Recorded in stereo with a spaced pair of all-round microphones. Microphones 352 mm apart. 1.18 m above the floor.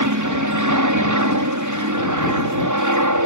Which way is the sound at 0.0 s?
55° right (ahead or behind).